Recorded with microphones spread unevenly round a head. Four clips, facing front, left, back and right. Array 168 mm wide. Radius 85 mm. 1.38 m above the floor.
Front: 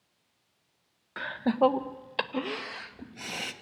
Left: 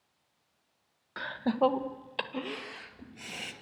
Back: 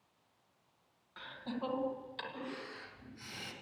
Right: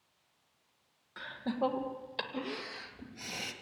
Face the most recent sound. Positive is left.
turn(degrees=-5)